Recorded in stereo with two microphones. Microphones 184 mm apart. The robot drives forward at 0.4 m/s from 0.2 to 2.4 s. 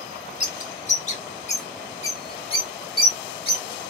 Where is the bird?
35° left (ahead or behind), 1.0 m; by 3.6 s 30° left (ahead or behind), 1.1 m.